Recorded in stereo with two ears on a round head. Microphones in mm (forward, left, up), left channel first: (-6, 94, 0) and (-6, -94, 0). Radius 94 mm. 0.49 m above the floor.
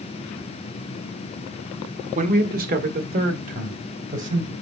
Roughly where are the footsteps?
I don't hear footsteps.